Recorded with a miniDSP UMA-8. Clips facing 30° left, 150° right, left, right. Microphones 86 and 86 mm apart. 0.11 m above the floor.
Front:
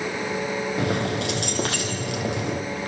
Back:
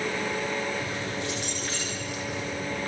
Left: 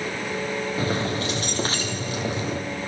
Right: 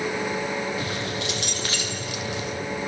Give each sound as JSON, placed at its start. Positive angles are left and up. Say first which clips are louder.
{"t": 0.8, "sound": "keys jangling", "louder": "front 7 dB, left 4 dB", "azimuth_deg": 35, "distance_m": 2.5}